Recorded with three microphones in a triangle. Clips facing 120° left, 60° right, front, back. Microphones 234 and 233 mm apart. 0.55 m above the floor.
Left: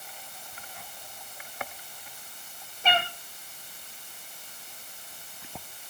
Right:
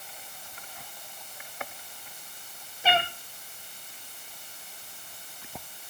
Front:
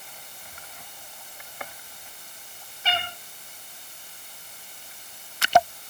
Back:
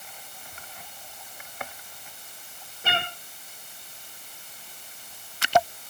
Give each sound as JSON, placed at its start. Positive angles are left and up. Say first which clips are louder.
{"t": 2.8, "sound": "a cat meowing", "louder": "right 2 dB, even", "azimuth_deg": -145, "distance_m": 2.5}